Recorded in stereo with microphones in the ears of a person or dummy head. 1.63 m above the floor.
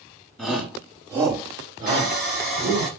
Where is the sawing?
10° left (ahead or behind), 1.0 m.